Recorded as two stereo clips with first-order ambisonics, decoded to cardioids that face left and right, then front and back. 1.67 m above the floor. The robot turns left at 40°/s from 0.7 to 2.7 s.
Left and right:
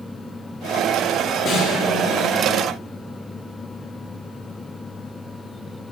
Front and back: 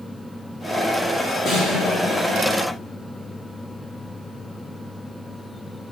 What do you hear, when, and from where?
1.4 s a snare drum: 40° left, 1.9 m; by 1.9 s 20° left, 1.9 m